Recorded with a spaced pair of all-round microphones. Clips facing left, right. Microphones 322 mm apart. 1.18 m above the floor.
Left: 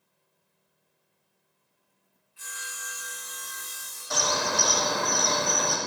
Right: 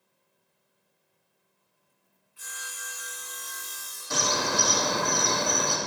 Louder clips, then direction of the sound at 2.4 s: Even; centre (ahead or behind).